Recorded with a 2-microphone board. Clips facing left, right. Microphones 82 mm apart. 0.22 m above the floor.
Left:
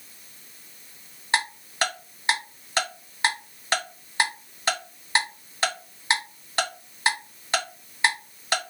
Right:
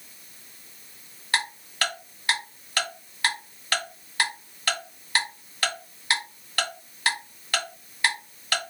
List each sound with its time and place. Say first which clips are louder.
1.3 s ticking: left 2 dB; 25° left (ahead or behind), 2.0 m